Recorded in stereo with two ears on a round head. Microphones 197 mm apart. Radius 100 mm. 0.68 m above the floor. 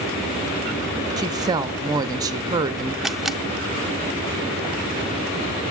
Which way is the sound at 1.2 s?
15° right (ahead or behind).